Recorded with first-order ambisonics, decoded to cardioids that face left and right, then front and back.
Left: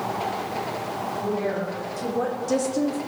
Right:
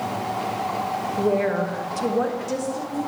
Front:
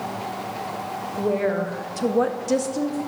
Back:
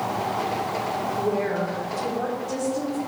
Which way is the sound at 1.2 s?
50° right.